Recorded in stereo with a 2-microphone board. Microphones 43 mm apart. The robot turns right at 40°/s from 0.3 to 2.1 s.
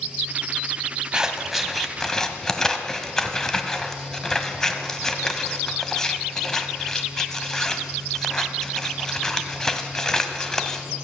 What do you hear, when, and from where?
1.1 s scissors: 15° right (ahead or behind), 1.3 m; by 10.8 s 15° left (ahead or behind), 1.3 m